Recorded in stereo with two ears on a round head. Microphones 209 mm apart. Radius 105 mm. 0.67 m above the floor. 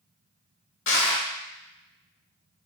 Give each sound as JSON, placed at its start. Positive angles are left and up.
{"t": 0.9, "sound": "crushing", "side_deg": 55, "distance_m": 1.0}